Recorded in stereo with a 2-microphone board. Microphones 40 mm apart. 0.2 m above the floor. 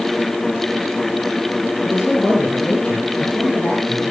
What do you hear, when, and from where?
1.9 s a man speaking: 15° left (ahead or behind), 5 m; by 4.1 s 30° left (ahead or behind), 8 m